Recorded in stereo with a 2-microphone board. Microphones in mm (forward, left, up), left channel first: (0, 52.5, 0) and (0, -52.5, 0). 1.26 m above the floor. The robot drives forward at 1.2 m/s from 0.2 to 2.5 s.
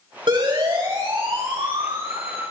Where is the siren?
50° right (ahead or behind), 7 m; by 2.4 s 80° right, 5.5 m.